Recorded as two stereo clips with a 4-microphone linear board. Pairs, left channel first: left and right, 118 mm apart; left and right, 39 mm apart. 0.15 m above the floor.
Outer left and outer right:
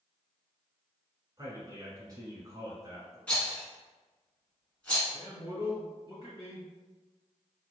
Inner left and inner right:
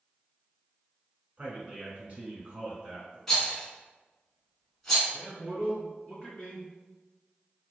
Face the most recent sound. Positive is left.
turn(degrees=35)  # may be behind; listen again after turning